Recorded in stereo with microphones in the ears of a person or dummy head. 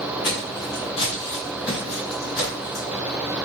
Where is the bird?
No bird in this recording.